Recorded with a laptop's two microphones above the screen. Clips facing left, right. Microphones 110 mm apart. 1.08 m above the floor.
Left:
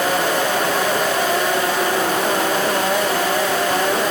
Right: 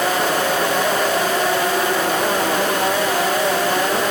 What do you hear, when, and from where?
Only background noise.